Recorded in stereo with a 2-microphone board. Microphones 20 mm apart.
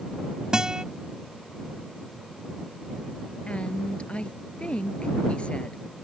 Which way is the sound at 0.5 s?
45° right (ahead or behind).